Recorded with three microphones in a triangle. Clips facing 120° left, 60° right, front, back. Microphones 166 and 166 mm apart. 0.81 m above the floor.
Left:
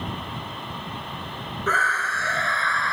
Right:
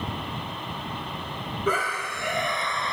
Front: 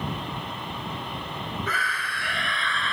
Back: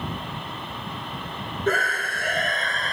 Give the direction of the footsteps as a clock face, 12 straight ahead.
No footsteps in this recording.